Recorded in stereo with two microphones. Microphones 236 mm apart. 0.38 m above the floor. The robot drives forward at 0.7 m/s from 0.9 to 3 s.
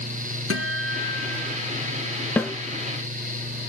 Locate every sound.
0.5 s a guitar: 70° right (ahead or behind), 2 m; by 1.7 s 60° right (ahead or behind), 2.5 m
2.4 s a snare drum: 5° left (ahead or behind), 1.4 m; by 2.5 s 10° left (ahead or behind), 1.3 m